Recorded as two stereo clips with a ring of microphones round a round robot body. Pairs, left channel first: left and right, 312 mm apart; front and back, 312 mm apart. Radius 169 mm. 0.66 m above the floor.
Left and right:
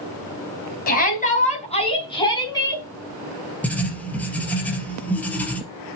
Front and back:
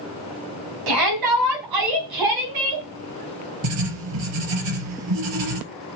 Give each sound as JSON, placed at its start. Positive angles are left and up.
{"t": 0.9, "sound": "a shout", "azimuth_deg": 150, "distance_m": 4.0}
{"t": 3.6, "sound": "writing", "azimuth_deg": 175, "distance_m": 3.0}